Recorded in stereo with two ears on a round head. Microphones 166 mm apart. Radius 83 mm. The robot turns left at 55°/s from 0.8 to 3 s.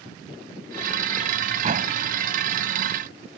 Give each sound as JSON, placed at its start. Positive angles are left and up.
{"t": 1.6, "sound": "a door slam", "side_deg": -35}